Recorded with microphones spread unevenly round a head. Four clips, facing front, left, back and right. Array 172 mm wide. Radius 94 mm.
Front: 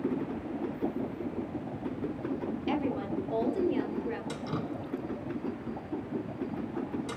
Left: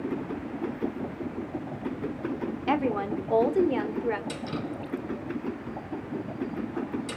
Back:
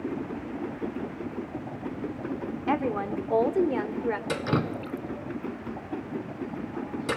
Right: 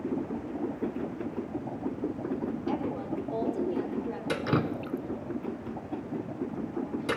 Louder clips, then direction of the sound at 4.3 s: Right 5 dB, back 7 dB; 130° right.